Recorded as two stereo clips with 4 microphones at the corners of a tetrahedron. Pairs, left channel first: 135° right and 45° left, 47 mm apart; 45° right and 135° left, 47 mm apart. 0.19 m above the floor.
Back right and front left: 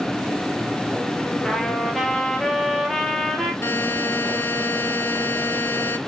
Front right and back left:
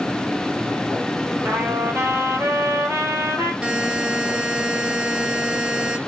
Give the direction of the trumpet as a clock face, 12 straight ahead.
7 o'clock.